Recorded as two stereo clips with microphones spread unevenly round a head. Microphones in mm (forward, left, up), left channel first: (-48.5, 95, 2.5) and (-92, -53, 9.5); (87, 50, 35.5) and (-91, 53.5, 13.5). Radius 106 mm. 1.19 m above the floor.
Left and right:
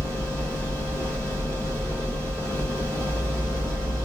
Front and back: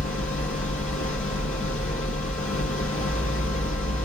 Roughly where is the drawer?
No drawer in this recording.